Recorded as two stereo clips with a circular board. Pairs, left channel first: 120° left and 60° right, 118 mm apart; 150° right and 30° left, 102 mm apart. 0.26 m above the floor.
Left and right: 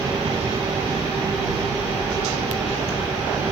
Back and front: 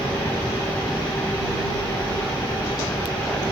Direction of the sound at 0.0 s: 90° right.